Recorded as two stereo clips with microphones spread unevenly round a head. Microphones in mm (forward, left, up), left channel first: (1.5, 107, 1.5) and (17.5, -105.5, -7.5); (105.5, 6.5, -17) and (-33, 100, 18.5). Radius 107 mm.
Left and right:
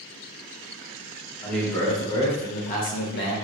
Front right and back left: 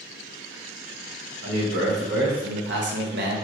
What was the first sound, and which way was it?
A man speaking, straight behind.